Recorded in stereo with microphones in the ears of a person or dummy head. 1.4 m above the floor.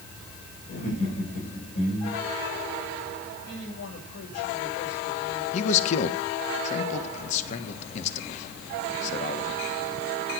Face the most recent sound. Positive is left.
turn(degrees=45)  # may be behind; listen again after turning